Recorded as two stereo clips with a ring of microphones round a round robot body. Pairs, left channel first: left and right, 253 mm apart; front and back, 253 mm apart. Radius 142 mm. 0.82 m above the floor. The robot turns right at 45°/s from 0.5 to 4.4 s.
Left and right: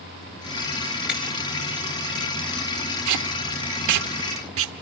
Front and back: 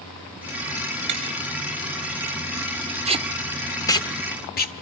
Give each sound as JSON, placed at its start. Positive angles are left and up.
{"t": 1.1, "sound": "breaking glass", "azimuth_deg": -175, "distance_m": 6.5}
{"t": 3.1, "sound": "tape being pulled", "azimuth_deg": -115, "distance_m": 1.3}